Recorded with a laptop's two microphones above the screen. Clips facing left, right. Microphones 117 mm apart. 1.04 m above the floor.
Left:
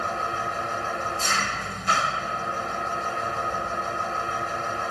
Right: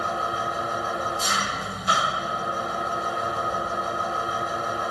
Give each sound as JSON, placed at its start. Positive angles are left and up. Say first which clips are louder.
{"t": 0.0, "sound": "an engine running", "louder": "right 1 dB", "side_deg": -10}